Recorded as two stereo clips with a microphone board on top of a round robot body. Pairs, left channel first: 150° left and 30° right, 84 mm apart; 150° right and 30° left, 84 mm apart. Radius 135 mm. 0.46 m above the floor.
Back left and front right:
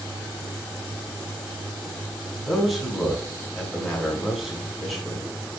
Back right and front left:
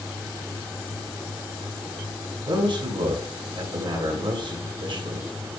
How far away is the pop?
I don't hear a pop.